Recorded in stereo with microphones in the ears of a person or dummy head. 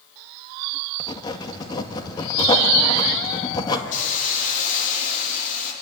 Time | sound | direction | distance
1.0 | writing | 20° left (ahead or behind) | 1.8 m
3.9 | a hiss | 45° left (ahead or behind) | 3 m